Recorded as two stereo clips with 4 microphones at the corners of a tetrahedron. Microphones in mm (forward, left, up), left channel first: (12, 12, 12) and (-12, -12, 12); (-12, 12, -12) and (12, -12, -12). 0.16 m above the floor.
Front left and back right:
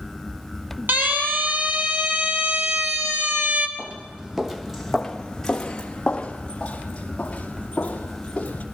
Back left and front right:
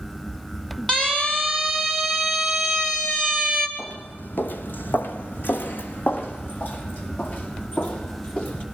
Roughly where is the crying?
I don't hear crying.